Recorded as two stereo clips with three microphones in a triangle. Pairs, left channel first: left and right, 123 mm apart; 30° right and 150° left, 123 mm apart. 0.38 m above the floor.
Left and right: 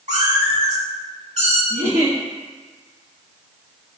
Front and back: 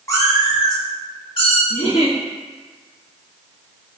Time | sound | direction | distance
0.1 | a cat meowing | 95° right | 1.4 m
1.7 | a giggle | 75° right | 1.1 m